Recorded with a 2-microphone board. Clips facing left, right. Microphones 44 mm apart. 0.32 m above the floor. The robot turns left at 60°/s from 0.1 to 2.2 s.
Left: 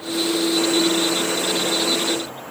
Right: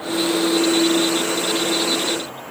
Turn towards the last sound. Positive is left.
No sound to turn to.